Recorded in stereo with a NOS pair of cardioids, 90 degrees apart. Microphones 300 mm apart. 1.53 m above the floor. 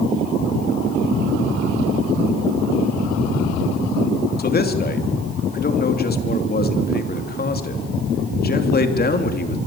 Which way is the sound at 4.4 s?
30° left.